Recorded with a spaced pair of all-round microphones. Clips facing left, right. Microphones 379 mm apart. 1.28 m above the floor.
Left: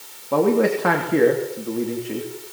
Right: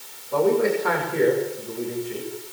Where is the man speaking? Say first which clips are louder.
Left 2 dB; 80° left, 3 m.